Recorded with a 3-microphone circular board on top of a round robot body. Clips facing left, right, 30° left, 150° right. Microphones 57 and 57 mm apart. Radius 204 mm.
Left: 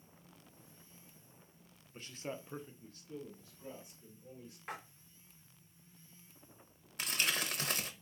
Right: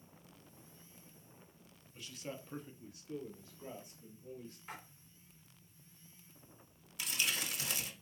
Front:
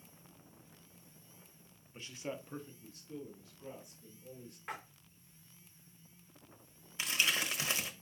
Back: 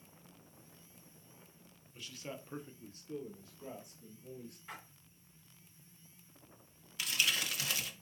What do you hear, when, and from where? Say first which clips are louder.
1.9 s a man speaking: left 2 dB, front 3 dB; 65° left, 1.1 m; by 4.6 s 135° right, 2.5 m
4.7 s a splash: left 5 dB, front 7 dB; 55° left, 0.6 m
7.0 s crumpling: left 2 dB, front 1 dB; 85° left, 1.2 m